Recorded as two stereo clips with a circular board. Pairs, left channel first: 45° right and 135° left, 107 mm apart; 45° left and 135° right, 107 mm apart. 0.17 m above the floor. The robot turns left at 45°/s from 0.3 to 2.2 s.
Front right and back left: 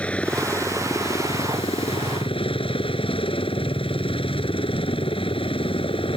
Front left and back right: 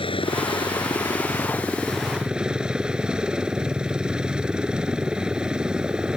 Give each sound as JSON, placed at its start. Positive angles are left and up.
{"t": 0.0, "sound": "a helicopter", "azimuth_deg": 30}